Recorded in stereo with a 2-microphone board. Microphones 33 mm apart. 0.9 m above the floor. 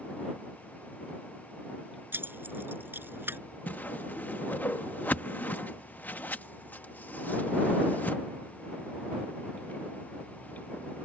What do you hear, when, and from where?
2.1 s keys jangling: 85° right; by 3.4 s 80° right
3.7 s a whoosh: 55° left (ahead or behind)